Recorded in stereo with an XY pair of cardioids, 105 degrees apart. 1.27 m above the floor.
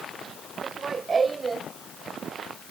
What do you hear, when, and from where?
0.6 s laughter: 40° right; by 1.7 s 30° right